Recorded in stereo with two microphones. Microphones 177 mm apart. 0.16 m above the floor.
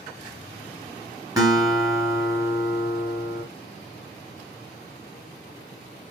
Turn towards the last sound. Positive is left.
turn(degrees=-20)  # may be behind; listen again after turning